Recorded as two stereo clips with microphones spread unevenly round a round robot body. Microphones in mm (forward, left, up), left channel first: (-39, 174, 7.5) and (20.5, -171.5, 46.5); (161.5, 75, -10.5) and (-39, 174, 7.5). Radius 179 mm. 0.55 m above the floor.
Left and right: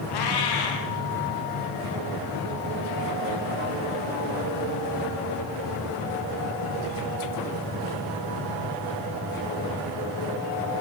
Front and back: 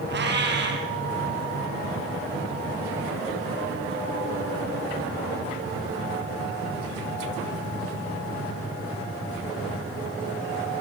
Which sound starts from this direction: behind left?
A cat meowing, at 0.1 s.